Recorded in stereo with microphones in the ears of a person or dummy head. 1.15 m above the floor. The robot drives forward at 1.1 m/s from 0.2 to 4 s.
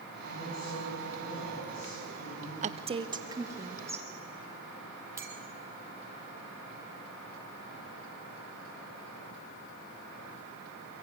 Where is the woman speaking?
40° right (ahead or behind), 0.7 m; by 4.0 s 10° right (ahead or behind), 2 m.